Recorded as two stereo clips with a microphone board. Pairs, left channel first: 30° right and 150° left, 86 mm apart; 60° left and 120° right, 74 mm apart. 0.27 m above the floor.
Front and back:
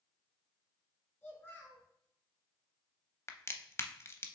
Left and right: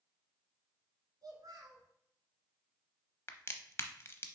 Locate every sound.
1.2 s a child speaking: 90° right, 1.7 m
3.3 s a crack: 20° left, 0.5 m